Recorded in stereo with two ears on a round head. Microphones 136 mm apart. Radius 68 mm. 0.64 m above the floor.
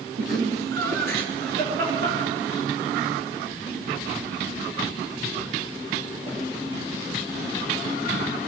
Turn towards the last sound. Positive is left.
turn(degrees=-35)  # may be behind; listen again after turning